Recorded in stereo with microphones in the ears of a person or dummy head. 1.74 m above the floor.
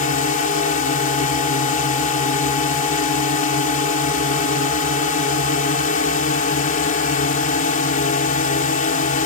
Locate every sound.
0.0 s a drone: 40° left (ahead or behind)